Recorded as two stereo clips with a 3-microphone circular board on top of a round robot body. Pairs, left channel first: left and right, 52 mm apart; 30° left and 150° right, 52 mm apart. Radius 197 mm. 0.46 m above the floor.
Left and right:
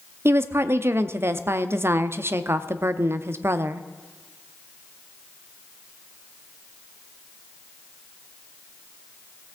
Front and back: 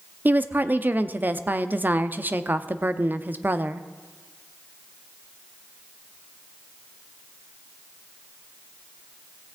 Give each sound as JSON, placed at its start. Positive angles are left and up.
{"t": 0.2, "sound": "a woman speaking", "azimuth_deg": -105, "distance_m": 0.9}